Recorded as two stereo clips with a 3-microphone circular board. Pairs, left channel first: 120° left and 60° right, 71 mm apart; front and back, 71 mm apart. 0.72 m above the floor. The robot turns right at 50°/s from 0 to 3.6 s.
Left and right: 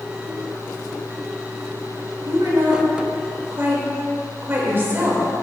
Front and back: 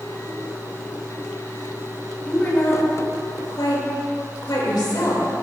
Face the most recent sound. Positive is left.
turn(degrees=-5)